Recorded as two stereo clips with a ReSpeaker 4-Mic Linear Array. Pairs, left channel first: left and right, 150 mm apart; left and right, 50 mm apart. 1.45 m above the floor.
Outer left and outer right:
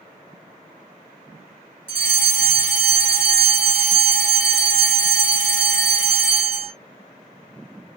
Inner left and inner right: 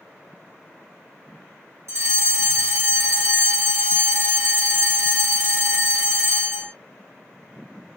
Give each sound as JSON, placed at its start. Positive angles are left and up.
{"t": 1.9, "sound": "a fire alarm", "side_deg": -60, "distance_m": 1.9}